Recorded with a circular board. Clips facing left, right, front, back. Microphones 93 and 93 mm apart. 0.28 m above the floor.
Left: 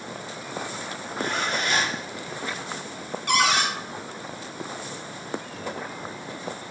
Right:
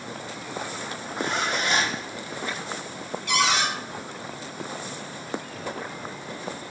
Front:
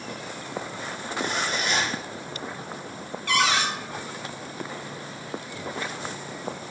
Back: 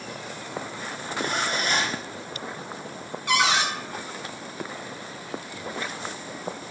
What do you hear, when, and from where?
1.2 s a zipper: 155° right, 1.1 m
3.3 s a cupboard door: 110° left, 0.7 m